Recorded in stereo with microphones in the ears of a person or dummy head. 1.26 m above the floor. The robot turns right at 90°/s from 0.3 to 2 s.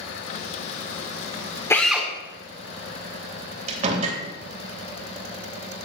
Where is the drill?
20° left (ahead or behind), 2 m; by 2.1 s 5° right (ahead or behind), 2 m.